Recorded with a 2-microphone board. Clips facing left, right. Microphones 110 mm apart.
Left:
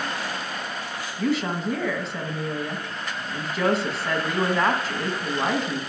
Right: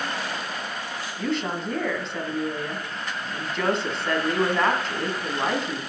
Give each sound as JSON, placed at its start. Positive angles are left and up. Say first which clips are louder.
{"t": 1.2, "sound": "a woman speaking", "louder": "left 3 dB", "side_deg": 5, "distance_m": 1.9}